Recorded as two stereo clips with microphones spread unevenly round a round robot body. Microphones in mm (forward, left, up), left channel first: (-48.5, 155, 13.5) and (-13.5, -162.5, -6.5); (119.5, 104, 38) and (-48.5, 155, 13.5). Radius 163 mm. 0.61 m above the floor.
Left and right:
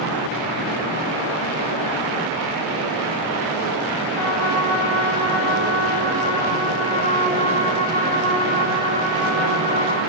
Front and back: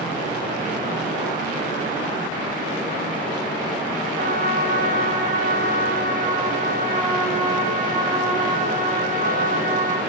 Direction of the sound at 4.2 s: 120° left.